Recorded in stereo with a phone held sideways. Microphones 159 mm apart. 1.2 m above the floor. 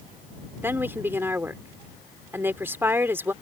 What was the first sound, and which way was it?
A woman speaking, 15° right (ahead or behind).